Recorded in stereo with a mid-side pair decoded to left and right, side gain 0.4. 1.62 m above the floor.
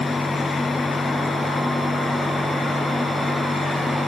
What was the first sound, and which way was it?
A fan, 15° left.